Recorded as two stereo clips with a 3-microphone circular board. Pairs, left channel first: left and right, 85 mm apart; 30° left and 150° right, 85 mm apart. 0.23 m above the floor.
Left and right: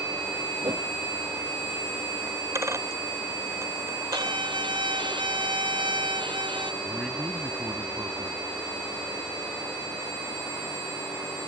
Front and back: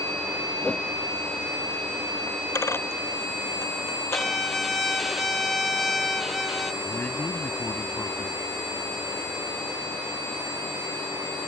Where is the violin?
60° right.